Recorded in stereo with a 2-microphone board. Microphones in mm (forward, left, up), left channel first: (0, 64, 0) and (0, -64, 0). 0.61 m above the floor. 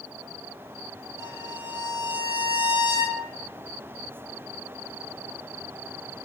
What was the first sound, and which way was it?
A violin, 80° left.